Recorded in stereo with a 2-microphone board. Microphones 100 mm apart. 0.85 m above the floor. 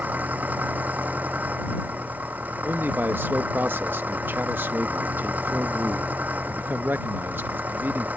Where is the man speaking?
20° right (ahead or behind).